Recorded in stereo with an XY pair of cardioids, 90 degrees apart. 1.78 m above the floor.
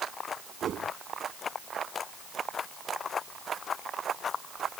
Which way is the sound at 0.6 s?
65° right.